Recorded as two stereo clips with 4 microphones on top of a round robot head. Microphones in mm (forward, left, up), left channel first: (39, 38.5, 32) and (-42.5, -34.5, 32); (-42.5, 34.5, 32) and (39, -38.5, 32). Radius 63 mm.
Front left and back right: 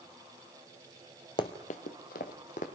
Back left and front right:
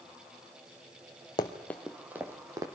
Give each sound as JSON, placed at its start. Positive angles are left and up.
{"t": 1.4, "sound": "running footsteps", "azimuth_deg": 85, "distance_m": 1.0}